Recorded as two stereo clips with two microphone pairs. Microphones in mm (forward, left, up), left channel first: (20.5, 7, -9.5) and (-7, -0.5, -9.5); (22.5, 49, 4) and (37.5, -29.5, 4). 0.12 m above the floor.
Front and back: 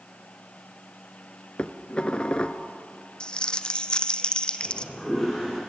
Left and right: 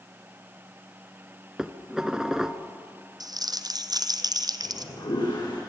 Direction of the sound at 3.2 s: 45° right.